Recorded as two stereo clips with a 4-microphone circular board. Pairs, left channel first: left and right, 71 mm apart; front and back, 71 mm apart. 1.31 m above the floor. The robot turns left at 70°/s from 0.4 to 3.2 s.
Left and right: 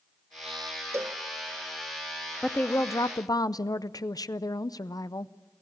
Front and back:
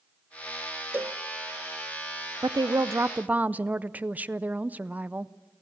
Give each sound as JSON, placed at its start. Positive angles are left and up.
{"t": 0.9, "sound": "a cowbell", "azimuth_deg": -130, "distance_m": 0.5}
{"t": 2.4, "sound": "a woman speaking", "azimuth_deg": 165, "distance_m": 0.5}